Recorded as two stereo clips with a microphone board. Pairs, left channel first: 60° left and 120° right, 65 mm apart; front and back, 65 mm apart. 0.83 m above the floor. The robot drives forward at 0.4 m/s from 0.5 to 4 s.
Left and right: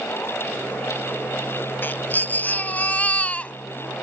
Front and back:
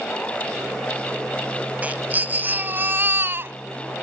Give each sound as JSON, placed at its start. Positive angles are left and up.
{"t": 1.8, "sound": "a baby crying", "azimuth_deg": 115}